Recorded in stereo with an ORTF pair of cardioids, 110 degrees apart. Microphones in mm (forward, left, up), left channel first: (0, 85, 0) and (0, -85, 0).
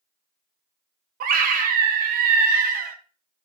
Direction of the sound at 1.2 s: 55° right.